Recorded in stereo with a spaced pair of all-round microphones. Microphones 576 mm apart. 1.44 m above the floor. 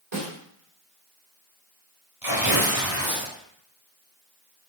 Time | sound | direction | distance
0.1 | a snare drum | 55° right (ahead or behind) | 3 m
2.2 | tearing paper | 40° right (ahead or behind) | 3 m